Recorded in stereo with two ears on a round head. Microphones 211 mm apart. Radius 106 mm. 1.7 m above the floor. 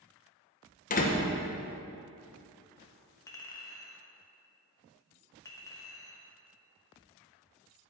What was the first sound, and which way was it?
A door slam, 35° left (ahead or behind).